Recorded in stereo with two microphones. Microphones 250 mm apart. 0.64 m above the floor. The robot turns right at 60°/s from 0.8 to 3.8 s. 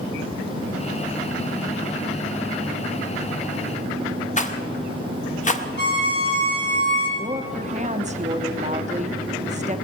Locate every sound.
4.4 s a rattle: 30° left (ahead or behind), 0.7 m
5.8 s a violin: 45° left (ahead or behind), 5.5 m
7.2 s a woman speaking: 30° right (ahead or behind), 0.7 m